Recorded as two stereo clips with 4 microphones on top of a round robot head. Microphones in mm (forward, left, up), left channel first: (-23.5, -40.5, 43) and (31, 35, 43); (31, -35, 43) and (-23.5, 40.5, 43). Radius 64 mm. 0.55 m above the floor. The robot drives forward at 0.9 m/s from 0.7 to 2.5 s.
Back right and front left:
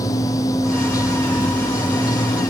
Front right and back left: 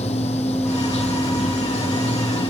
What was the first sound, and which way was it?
Running water, 70° right.